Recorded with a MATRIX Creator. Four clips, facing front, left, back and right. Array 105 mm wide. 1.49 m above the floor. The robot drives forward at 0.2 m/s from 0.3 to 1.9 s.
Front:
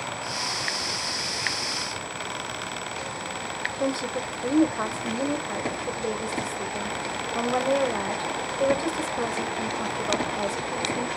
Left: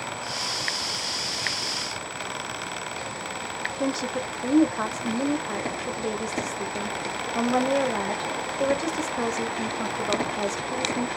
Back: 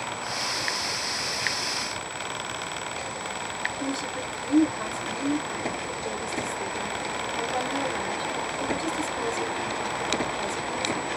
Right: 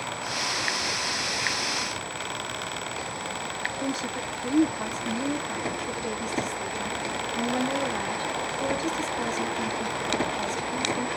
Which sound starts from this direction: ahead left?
A woman speaking, at 3.8 s.